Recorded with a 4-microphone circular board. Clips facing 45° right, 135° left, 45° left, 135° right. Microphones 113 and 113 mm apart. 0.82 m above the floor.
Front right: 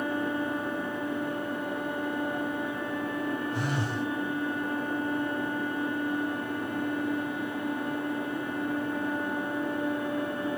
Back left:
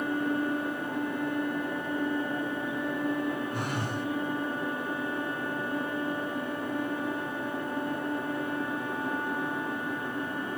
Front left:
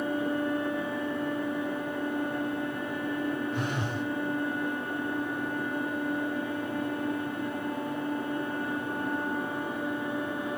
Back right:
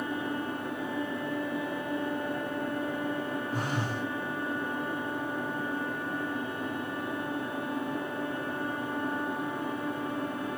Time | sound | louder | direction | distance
3.5 | a phone buzzing | front right 1 dB, front left 1 dB | 175° left | 8.5 m